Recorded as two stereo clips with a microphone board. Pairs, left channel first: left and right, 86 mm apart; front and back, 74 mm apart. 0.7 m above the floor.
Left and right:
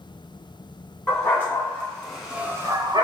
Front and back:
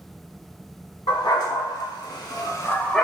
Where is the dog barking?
25° left, 1.6 m; by 3.0 s 90° right, 0.6 m.